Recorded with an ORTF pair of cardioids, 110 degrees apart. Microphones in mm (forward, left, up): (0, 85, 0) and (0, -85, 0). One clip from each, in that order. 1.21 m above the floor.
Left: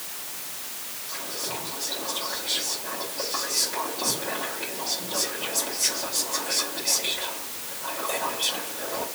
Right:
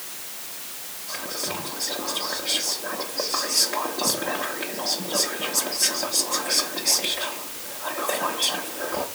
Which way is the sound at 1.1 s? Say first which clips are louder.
Right 3 dB; 45° right.